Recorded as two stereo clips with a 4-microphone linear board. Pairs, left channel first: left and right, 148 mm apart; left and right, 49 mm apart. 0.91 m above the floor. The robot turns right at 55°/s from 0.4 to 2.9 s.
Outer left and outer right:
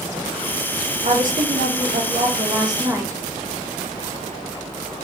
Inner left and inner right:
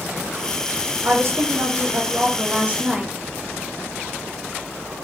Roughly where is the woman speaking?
Behind right.